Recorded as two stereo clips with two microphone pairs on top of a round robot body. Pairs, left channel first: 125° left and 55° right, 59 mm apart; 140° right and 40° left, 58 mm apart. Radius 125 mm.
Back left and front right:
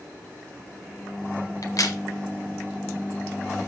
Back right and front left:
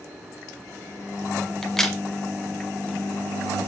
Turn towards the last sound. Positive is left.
turn(degrees=140)